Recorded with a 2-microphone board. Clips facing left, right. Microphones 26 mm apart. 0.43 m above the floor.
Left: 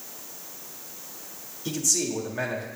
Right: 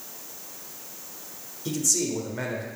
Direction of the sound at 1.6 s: 5° left (ahead or behind).